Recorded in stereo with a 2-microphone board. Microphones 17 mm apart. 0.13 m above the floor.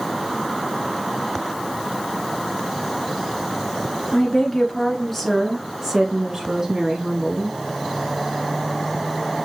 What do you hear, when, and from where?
4.1 s a woman speaking: 30° left (ahead or behind), 1.5 m; by 7.6 s 50° right (ahead or behind), 1.6 m